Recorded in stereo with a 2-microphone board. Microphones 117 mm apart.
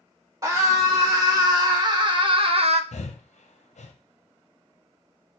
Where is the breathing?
70° left (ahead or behind), 0.6 m.